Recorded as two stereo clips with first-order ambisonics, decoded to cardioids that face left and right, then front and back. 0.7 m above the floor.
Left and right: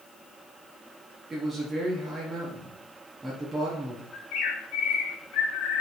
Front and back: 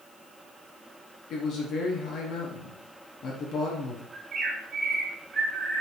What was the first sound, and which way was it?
A man speaking, 20° right.